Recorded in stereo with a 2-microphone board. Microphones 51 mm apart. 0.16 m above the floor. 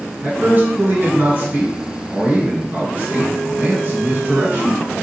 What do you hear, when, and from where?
0.2 s a man speaking: 40° right (ahead or behind), 2.0 m